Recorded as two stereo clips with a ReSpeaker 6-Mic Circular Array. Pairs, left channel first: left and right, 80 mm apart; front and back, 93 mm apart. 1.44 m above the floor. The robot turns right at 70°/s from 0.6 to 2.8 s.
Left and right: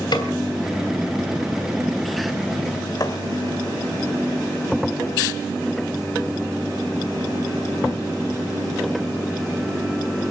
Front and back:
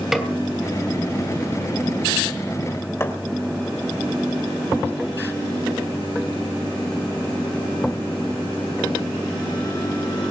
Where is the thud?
60° left, 2.5 m.